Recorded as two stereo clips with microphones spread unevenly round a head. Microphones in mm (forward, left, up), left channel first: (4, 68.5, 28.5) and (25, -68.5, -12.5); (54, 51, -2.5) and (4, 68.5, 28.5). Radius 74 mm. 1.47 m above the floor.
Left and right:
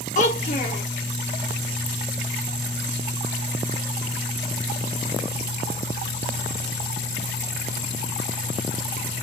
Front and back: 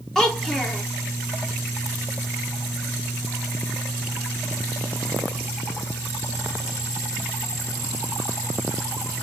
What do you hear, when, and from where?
0.1 s a child speaking: 75° left, 2 m